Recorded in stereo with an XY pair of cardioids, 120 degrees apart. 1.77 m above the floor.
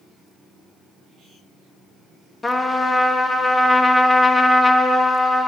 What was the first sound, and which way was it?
A trumpet, 20° left.